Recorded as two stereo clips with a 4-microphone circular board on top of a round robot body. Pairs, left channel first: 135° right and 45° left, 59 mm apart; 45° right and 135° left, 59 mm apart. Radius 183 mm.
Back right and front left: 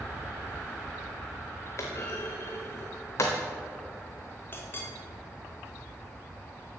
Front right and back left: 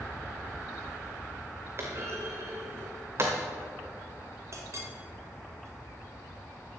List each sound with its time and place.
1.8 s a clunk: 175° right, 0.5 m
4.5 s a clink: 175° left, 1.6 m